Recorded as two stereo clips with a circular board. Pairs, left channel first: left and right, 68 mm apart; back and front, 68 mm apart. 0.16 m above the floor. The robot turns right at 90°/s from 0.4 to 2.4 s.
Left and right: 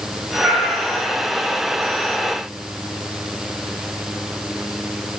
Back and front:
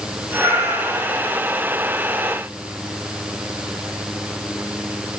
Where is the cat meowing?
35° right, 9 m; by 1.3 s 45° left, 9 m.